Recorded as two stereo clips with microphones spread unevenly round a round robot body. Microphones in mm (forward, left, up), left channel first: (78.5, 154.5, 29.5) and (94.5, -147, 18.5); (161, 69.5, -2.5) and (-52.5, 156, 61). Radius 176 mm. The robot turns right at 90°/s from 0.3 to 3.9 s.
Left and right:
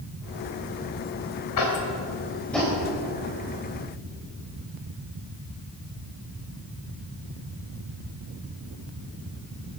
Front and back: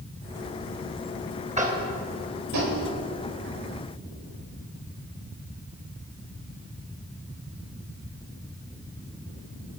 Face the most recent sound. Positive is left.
turn(degrees=-55)